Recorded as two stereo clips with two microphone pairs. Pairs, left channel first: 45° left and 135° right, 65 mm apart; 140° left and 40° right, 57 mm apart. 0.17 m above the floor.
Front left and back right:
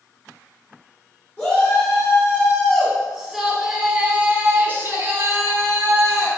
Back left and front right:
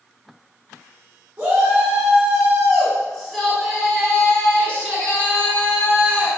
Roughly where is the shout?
Ahead.